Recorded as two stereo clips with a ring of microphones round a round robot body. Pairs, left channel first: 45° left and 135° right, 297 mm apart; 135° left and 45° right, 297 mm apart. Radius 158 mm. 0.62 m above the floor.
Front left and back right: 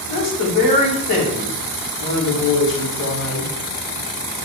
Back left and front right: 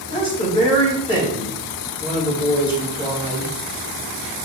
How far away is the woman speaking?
About 4.5 m.